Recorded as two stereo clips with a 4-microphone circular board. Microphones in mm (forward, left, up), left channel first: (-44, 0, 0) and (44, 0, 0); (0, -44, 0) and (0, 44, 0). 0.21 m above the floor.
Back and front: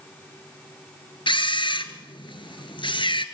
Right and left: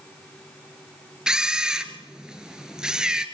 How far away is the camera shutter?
About 1.5 m.